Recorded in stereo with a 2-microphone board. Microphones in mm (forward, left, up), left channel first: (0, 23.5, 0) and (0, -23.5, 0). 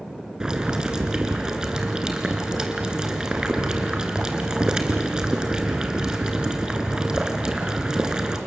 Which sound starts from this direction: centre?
Boiling, at 0.4 s.